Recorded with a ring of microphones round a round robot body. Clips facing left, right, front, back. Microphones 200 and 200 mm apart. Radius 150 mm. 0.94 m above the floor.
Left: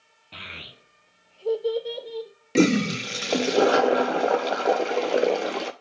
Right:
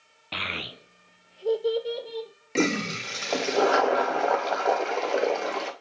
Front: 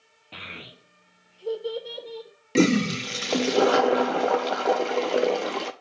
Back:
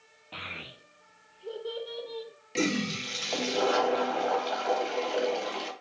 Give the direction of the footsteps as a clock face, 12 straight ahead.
I don't hear footsteps.